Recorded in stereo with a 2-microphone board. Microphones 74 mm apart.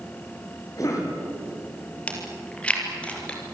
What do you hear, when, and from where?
0.8 s a cough: 50° left (ahead or behind), 7.5 m
2.1 s chewing: 15° left (ahead or behind), 4.5 m